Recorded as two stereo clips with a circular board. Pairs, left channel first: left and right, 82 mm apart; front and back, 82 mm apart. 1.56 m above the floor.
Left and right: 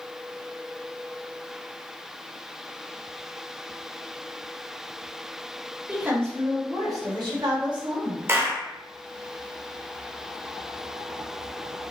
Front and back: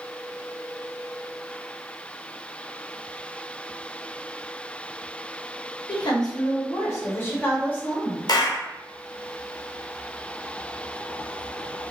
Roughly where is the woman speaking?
Ahead.